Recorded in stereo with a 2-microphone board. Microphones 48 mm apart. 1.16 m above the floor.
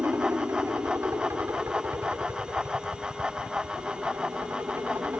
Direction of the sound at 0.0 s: 65° right (ahead or behind).